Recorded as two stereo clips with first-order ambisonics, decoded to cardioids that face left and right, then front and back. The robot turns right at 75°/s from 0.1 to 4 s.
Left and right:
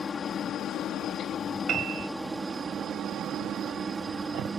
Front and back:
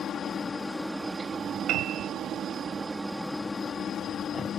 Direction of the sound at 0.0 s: 35° left.